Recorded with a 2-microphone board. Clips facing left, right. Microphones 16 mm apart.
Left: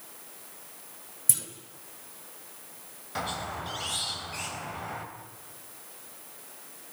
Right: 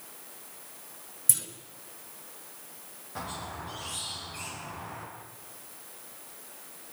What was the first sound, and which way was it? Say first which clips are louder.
A clunk: even; 5° right (ahead or behind).